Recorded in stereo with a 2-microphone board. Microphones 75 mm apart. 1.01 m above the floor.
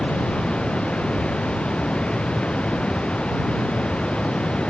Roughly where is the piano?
No piano in this recording.